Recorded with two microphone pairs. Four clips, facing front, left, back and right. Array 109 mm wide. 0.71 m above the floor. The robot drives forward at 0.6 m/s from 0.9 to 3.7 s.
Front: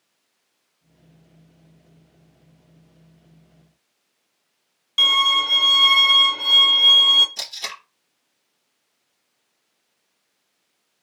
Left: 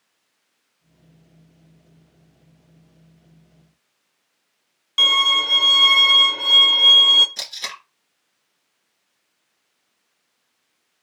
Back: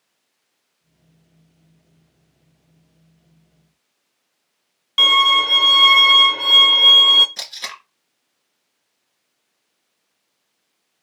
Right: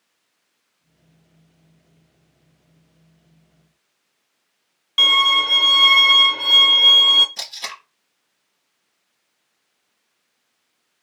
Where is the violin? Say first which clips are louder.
Right 3 dB, back 5 dB; 170° right, 0.5 m.